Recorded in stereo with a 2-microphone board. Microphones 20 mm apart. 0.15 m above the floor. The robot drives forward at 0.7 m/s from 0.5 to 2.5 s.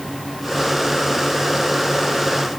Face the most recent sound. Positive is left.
No sound to turn to.